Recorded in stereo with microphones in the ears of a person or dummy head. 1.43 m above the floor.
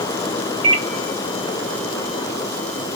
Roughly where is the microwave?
Right.